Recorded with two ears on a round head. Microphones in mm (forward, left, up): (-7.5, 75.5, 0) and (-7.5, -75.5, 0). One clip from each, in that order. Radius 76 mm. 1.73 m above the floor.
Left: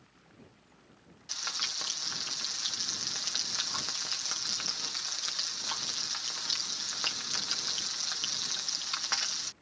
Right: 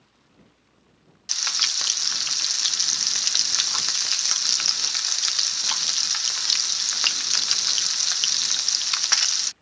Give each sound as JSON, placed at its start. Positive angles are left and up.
{"t": 1.3, "sound": "frying", "side_deg": -50}